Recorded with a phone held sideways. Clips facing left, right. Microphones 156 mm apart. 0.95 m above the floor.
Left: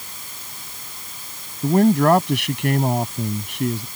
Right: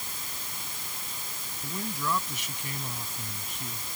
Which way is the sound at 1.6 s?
75° left (ahead or behind).